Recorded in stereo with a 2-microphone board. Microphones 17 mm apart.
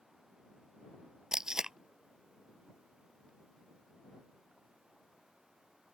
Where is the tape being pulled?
40° right (ahead or behind).